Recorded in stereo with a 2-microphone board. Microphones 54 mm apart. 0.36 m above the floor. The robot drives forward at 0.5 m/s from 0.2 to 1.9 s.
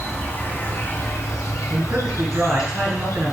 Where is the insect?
30° left (ahead or behind), 1.0 m; by 3.3 s 75° left (ahead or behind), 0.5 m.